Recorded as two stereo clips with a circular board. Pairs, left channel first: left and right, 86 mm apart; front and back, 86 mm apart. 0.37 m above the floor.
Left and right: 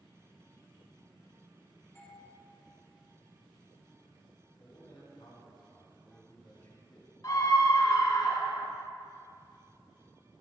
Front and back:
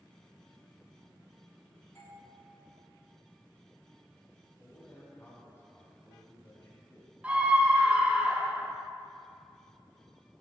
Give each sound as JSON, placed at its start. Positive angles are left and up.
{"t": 1.9, "sound": "a doorbell", "azimuth_deg": 45, "distance_m": 3.0}
{"t": 4.6, "sound": "a man speaking", "azimuth_deg": 60, "distance_m": 2.5}
{"t": 7.2, "sound": "a scream", "azimuth_deg": 115, "distance_m": 1.2}